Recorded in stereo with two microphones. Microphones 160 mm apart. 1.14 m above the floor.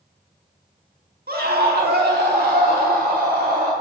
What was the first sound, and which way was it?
A scream, 70° right (ahead or behind).